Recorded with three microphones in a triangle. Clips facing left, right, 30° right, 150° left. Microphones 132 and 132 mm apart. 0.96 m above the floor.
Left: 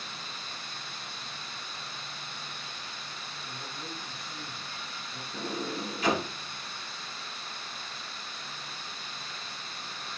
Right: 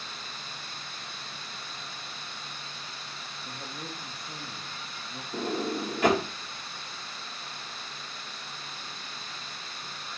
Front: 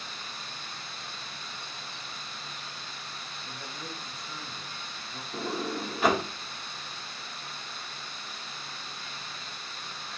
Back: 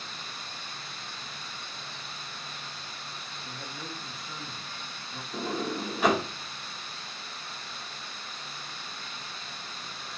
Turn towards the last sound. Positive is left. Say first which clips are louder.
# right 5 dB, back 1 dB
turn(degrees=-115)